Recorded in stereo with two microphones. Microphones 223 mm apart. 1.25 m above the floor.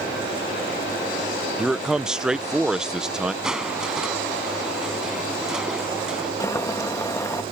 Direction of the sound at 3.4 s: 5° right (ahead or behind).